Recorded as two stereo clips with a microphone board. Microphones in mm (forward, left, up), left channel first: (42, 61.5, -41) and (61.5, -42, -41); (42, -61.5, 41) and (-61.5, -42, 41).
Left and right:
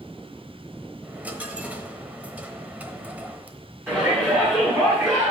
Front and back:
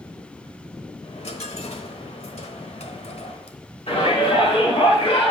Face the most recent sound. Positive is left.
turn(degrees=-10)